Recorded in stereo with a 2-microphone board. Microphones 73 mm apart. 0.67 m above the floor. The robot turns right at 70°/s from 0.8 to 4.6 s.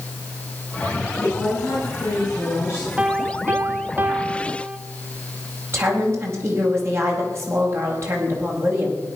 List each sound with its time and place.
1.2 s a woman speaking: 20° left, 8 m; by 2.9 s 140° left, 8 m
3.0 s a piano: 15° right (ahead or behind), 0.8 m
5.7 s a woman speaking: 35° right (ahead or behind), 5 m